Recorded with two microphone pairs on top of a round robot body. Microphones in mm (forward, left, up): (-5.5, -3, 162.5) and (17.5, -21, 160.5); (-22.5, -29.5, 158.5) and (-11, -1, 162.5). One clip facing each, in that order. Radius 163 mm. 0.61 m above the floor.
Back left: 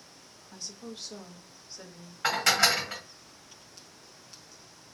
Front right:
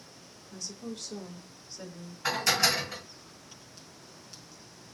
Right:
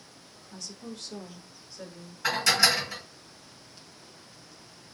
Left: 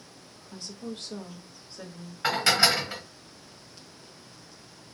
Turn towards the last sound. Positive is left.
turn(degrees=115)